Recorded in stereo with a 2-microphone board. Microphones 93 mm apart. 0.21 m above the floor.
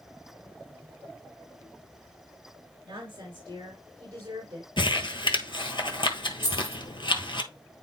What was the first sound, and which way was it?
A woman speaking, 45° right (ahead or behind).